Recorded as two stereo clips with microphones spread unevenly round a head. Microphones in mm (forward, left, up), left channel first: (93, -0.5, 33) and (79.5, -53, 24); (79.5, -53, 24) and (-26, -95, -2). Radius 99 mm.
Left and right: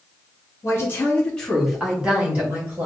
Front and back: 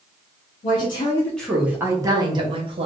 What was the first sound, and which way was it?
A woman speaking, 40° left.